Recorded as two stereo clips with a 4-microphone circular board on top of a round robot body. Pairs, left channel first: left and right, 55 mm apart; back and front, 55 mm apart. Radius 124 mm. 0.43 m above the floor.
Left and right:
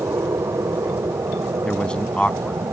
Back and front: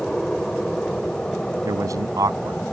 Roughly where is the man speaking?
Ahead.